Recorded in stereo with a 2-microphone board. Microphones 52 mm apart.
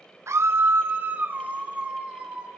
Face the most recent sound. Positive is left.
turn(degrees=-25)  # may be behind; listen again after turning